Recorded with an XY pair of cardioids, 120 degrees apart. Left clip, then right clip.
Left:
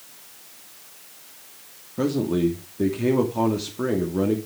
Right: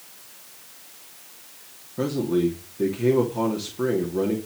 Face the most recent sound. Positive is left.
turn(degrees=15)